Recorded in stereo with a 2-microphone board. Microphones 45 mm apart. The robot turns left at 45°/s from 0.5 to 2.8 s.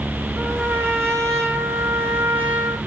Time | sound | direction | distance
0.4 | a trumpet | 50° right | 3.5 m